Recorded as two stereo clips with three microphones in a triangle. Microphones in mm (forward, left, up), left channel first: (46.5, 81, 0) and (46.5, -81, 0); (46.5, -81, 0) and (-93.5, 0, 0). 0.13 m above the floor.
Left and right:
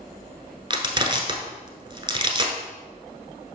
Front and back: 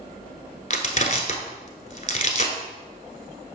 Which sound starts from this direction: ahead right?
Crushing, at 0.7 s.